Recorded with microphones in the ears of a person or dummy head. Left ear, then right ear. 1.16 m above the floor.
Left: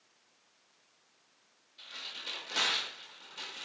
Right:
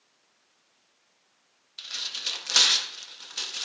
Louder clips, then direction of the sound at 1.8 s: Right 10 dB; 35° right (ahead or behind).